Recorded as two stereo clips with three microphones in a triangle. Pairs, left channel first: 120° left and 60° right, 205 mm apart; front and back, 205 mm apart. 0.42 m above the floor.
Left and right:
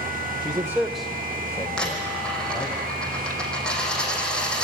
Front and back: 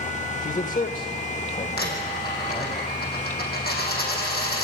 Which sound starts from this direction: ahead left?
A dropped coin, at 1.8 s.